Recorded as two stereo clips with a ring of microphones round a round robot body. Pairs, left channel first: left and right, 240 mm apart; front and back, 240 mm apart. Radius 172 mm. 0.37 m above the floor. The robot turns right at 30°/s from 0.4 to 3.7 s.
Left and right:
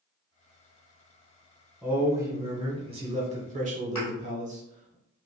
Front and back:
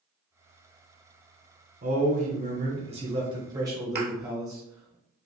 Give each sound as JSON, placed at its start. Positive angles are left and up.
{"t": 1.8, "sound": "a man speaking", "azimuth_deg": -170, "distance_m": 0.9}
{"t": 4.0, "sound": "a thud", "azimuth_deg": 135, "distance_m": 1.3}